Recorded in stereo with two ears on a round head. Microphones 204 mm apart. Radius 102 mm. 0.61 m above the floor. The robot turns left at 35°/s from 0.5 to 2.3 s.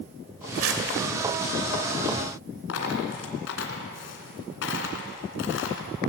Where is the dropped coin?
55° left (ahead or behind), 2.5 m.